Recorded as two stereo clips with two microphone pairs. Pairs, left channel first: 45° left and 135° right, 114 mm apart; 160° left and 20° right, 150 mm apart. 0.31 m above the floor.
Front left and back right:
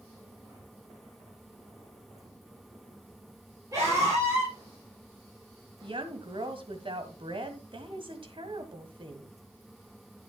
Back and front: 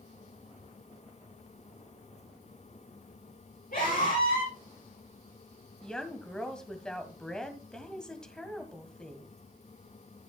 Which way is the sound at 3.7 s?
165° left.